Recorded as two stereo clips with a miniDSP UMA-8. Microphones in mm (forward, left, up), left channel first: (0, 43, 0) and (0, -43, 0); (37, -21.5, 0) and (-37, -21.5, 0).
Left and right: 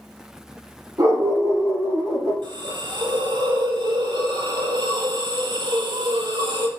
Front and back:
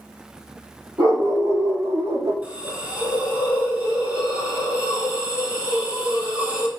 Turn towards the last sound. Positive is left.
turn(degrees=-110)